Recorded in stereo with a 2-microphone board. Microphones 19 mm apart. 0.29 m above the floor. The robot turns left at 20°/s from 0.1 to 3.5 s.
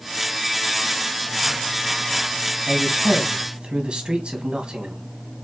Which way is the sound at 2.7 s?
50° right (ahead or behind).